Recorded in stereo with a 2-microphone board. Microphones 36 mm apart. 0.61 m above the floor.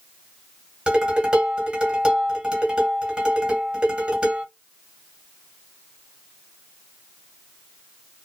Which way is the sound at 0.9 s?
25° right (ahead or behind).